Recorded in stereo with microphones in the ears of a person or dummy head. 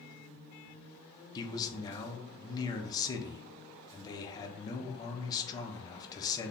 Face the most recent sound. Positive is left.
turn(degrees=20)  # may be behind; listen again after turning